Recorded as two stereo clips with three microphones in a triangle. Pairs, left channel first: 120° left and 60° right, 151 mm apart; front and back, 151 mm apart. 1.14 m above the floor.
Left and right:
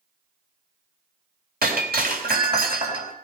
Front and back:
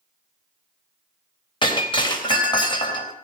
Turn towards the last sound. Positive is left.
turn(degrees=-60)